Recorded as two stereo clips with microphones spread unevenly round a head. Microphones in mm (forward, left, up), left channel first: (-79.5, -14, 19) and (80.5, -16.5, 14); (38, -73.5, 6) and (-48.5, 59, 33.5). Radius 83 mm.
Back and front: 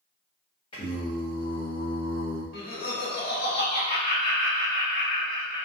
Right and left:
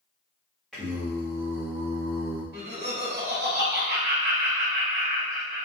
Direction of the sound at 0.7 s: 160° right.